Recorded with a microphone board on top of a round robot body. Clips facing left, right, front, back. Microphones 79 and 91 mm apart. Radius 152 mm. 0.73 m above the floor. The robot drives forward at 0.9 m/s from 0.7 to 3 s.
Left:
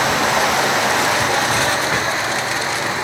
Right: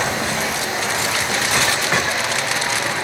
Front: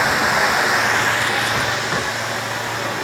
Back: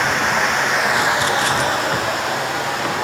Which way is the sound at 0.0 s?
85° left.